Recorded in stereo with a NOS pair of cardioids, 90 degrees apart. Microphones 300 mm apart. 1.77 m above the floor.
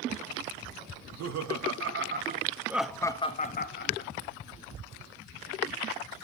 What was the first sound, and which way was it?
Laughter, 65° right.